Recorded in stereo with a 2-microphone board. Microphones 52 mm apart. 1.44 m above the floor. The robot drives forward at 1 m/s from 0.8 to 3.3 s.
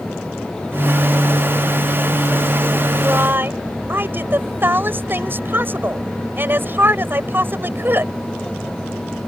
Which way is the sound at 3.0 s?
45° right (ahead or behind).